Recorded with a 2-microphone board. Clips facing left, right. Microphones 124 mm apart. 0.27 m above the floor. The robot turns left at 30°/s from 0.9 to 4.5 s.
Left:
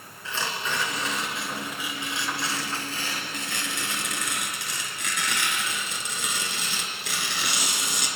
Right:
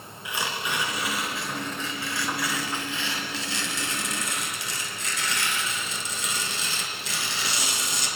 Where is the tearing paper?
165° right, 4 m; by 8.1 s 85° left, 4 m.